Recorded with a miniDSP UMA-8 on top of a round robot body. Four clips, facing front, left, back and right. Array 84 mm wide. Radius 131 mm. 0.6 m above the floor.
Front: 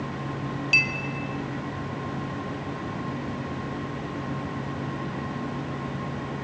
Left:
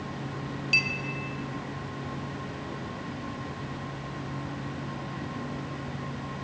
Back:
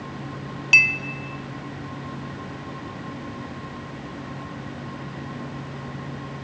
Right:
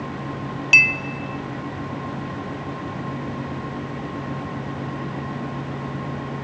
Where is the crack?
I don't hear a crack.